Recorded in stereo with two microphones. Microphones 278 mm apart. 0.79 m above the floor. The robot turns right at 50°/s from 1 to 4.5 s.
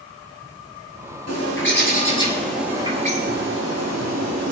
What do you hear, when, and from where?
1.3 s a bird: 115° left, 6.5 m; by 4.5 s 80° right, 6.5 m